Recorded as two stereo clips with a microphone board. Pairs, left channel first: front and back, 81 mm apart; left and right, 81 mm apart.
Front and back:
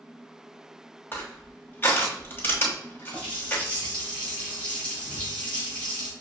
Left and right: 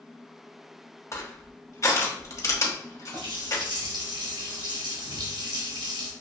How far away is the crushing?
About 1.2 m.